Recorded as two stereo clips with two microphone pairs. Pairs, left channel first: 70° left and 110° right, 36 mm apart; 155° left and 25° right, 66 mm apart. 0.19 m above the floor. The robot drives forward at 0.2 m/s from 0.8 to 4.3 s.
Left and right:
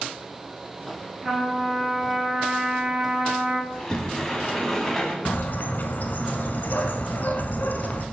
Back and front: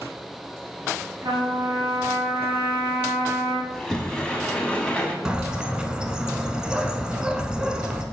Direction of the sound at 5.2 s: 55° left.